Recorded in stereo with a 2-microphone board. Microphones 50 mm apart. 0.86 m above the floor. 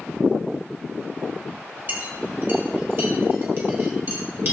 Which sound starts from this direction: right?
A clink, at 1.9 s.